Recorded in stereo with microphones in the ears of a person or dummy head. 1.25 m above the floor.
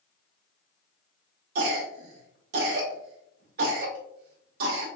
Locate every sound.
1.6 s a cough: 60° right (ahead or behind), 0.8 m